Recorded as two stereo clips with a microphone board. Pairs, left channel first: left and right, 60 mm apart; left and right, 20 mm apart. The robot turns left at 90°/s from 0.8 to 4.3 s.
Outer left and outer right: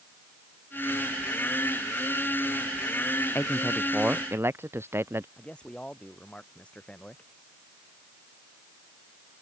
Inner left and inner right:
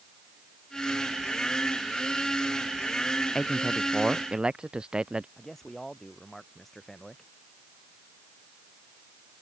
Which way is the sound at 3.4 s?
40° left.